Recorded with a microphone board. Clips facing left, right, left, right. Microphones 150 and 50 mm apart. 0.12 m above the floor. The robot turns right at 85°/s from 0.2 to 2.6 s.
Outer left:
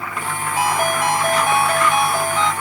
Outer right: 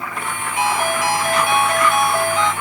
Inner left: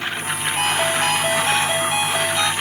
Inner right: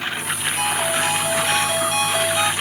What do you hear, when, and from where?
0.6 s a ringtone: 40° left, 1.5 m; by 2.5 s 155° right, 1.5 m